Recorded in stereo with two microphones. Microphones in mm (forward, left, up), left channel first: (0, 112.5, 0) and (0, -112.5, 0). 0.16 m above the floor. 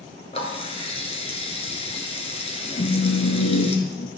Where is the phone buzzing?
55° left (ahead or behind), 2.5 m.